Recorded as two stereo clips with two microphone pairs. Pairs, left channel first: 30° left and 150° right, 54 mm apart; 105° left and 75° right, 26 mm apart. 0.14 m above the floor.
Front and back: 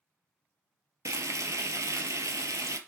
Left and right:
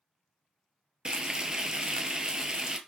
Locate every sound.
1.1 s frying: 130° right, 0.6 m